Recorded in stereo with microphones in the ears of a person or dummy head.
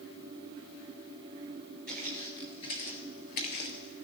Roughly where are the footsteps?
Centre.